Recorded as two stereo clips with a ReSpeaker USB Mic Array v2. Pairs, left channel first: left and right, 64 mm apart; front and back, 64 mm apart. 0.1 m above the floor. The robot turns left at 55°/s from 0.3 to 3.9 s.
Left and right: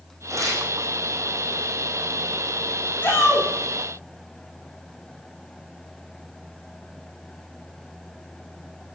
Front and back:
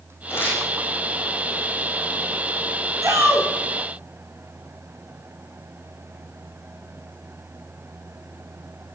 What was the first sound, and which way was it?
Tearing paper, 50° right.